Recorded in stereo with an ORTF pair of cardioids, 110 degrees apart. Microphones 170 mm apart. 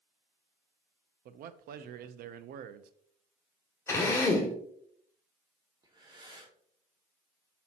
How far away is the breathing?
About 1.9 m.